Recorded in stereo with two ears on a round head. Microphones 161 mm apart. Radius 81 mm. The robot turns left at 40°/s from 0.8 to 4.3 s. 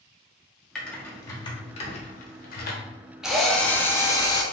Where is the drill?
175° right, 0.5 m; by 4.4 s 140° left, 0.5 m.